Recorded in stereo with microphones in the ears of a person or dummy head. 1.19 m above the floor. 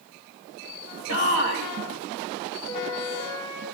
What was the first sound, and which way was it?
A shout, 70° left (ahead or behind).